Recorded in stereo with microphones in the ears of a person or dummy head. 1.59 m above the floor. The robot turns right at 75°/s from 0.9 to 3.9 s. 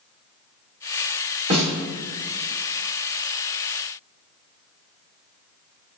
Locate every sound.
1.5 s a snare drum: 40° right (ahead or behind), 1.8 m; by 1.7 s 55° right (ahead or behind), 1.8 m